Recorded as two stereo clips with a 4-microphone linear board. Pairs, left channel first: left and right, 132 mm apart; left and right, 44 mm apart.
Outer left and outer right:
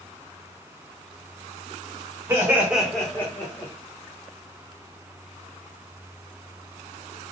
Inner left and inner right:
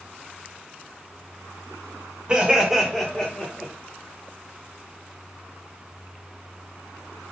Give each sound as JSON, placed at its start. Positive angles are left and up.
{"t": 2.3, "sound": "laughter", "side_deg": -20, "distance_m": 1.4}